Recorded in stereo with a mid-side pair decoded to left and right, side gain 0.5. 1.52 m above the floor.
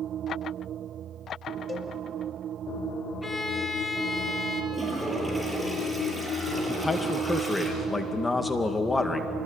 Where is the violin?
10° left, 3 m.